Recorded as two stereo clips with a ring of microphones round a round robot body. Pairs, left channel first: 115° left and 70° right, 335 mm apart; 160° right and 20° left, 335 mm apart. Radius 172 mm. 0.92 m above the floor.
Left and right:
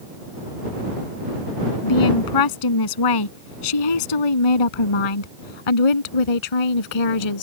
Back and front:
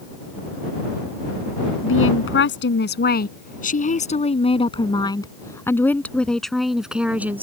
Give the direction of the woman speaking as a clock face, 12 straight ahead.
7 o'clock.